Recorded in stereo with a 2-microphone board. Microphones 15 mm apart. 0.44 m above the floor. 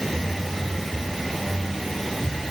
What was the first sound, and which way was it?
Only background noise.